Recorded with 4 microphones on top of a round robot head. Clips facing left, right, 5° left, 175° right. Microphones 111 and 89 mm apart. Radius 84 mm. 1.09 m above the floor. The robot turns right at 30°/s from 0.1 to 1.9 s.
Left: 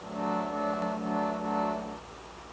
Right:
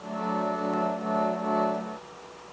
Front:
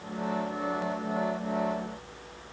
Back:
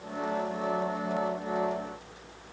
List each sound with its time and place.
Only background noise.